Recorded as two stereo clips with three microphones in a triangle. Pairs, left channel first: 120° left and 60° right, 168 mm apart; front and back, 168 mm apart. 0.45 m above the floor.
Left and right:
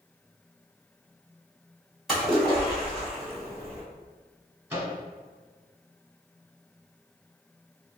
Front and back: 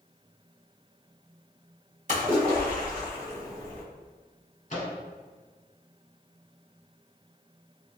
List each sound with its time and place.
2.1 s a splash: 150° right, 1.5 m
4.7 s a microwave: 5° left, 1.3 m